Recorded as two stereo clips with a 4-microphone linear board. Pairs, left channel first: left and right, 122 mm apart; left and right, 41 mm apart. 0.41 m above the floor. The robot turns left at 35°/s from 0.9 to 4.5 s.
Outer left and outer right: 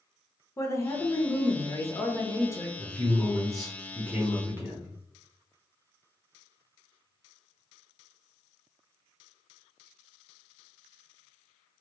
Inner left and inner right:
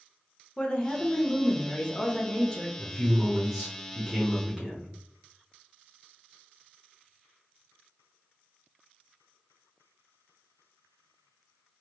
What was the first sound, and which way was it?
A woman speaking, 25° left (ahead or behind).